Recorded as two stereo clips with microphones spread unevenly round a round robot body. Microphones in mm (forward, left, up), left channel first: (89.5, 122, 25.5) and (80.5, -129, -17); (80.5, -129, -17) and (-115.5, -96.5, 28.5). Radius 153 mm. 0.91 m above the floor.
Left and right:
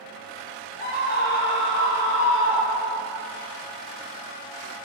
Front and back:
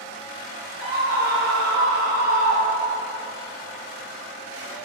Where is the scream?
175° left, 3.5 m; by 3.0 s 135° left, 4.5 m.